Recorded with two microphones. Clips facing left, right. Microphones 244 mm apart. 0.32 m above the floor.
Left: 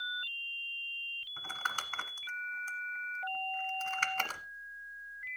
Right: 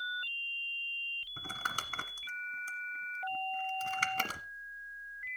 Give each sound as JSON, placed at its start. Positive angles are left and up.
{"t": 1.4, "sound": "crumpling", "side_deg": -40, "distance_m": 1.2}